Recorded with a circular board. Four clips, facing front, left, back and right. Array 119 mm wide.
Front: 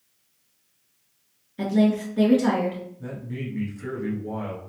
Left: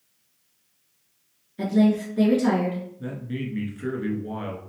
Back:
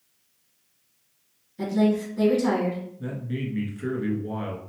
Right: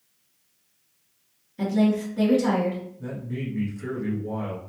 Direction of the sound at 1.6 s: 15° left.